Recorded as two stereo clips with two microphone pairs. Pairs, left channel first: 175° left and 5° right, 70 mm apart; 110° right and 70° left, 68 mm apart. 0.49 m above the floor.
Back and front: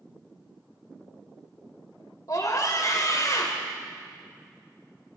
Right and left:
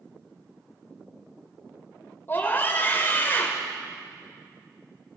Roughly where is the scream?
Behind.